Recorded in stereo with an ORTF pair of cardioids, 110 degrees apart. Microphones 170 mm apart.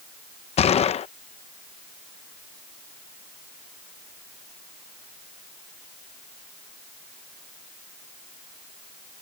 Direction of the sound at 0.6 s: 40° left.